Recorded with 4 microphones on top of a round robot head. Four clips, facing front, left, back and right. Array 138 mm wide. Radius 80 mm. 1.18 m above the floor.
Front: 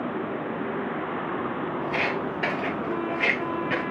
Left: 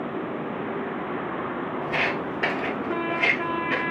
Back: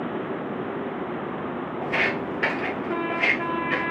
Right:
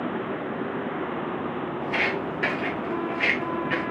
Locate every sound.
1.8 s footsteps: 170° right, 1.5 m; by 3.8 s 25° right, 1.2 m